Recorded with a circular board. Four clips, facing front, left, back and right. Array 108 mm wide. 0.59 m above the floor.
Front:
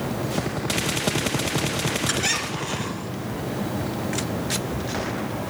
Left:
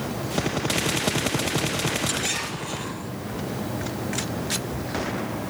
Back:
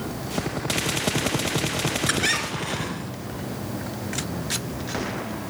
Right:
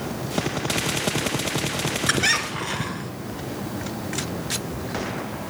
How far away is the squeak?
About 3 m.